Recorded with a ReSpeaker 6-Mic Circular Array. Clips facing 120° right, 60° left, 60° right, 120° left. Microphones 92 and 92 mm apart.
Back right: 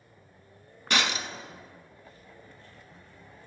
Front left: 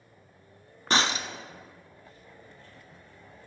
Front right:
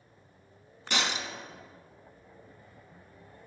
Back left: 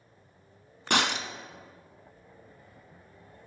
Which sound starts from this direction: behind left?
Breaking glass, at 0.9 s.